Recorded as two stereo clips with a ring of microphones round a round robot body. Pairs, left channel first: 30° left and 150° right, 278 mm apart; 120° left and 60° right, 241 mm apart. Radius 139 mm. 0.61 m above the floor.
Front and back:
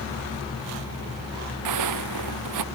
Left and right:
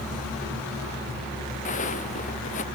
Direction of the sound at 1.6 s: 175° right.